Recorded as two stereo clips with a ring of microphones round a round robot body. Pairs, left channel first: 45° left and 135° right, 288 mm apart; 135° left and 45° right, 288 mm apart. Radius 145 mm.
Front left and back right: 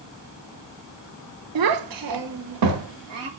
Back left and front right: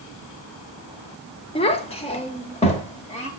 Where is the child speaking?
155° right, 0.9 m.